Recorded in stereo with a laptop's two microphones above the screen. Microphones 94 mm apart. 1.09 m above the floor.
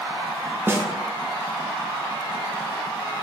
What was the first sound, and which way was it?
A snare drum, 25° right (ahead or behind).